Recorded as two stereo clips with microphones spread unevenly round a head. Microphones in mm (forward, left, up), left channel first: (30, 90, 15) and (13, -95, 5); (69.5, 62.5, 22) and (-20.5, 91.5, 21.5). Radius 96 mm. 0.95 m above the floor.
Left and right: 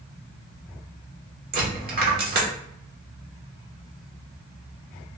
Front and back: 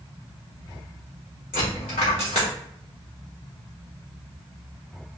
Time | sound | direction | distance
1.5 | a dropped coin | 55° right | 1.1 m